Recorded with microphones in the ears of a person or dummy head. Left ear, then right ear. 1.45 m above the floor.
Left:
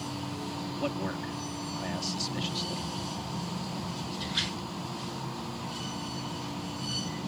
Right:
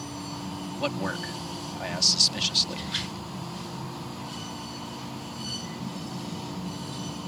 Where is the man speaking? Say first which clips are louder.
Right 5 dB; 40° right (ahead or behind).